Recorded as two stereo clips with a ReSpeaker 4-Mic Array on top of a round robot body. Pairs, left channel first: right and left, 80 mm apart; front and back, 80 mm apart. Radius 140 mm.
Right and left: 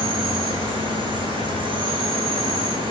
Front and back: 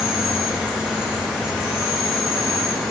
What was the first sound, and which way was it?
An insect, 100° left.